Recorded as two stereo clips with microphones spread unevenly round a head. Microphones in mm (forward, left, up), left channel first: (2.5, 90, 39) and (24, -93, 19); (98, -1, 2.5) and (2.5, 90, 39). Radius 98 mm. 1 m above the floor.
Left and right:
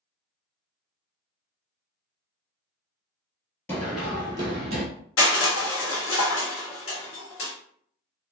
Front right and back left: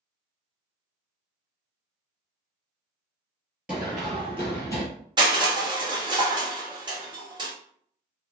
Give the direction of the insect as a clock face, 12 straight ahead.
I don't hear an insect.